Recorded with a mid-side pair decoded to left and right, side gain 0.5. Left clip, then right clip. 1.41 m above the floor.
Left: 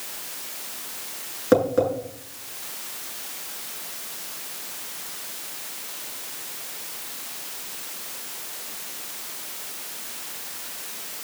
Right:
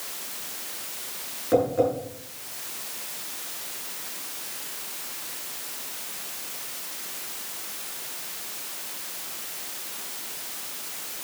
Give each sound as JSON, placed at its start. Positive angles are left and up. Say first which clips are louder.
{"t": 1.5, "sound": "tapping", "louder": "left 2 dB", "azimuth_deg": 60, "distance_m": 7.5}